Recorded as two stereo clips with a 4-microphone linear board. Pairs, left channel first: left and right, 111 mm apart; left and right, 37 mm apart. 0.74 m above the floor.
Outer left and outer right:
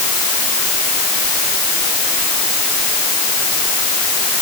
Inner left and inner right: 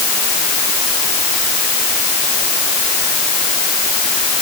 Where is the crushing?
I don't hear crushing.